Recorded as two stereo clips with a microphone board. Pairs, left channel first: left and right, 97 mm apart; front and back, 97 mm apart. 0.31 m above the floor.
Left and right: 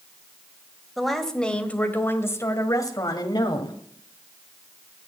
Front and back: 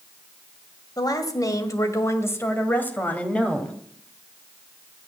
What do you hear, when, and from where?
1.0 s a woman speaking: straight ahead, 1.7 m; by 3.8 s 80° left, 2 m